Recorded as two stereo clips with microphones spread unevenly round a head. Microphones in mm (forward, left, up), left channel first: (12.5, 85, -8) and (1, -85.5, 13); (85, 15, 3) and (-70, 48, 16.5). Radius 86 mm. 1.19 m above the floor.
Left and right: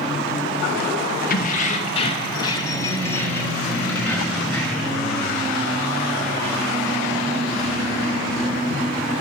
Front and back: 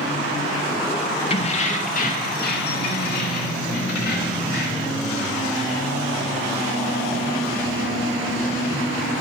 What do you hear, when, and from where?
1.3 s keys jangling: 45° left, 0.8 m; by 5.0 s straight ahead, 2.5 m